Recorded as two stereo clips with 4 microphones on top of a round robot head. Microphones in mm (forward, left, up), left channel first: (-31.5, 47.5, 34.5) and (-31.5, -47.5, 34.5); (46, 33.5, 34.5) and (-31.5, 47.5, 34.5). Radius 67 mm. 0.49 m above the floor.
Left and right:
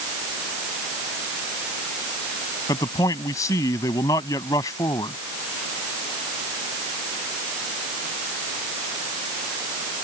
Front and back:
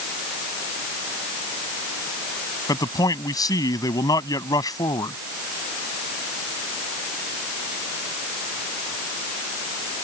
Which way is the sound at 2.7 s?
25° left.